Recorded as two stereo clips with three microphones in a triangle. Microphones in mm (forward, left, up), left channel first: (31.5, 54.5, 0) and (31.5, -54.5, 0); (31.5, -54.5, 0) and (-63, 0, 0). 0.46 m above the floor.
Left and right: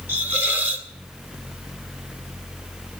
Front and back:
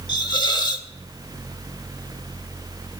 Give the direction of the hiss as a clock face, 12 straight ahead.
1 o'clock.